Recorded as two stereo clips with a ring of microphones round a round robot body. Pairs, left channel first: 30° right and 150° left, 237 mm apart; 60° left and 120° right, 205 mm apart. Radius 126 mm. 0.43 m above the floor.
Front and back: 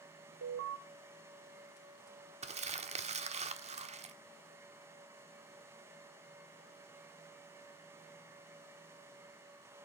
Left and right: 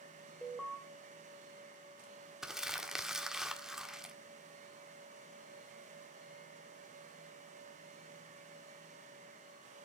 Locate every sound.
0.4 s an alarm: 150° left, 2.5 m
2.4 s crumpling: 155° left, 1.4 m